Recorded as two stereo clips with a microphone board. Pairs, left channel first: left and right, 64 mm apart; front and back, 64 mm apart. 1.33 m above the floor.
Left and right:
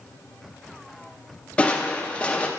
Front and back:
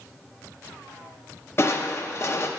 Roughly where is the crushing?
Ahead left.